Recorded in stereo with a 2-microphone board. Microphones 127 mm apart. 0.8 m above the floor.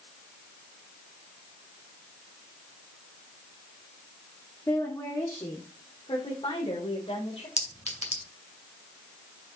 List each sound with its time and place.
4.7 s a woman speaking: 20° left (ahead or behind), 1.6 m; by 7.5 s 55° left (ahead or behind), 3 m
7.6 s a clink: 60° left (ahead or behind), 2 m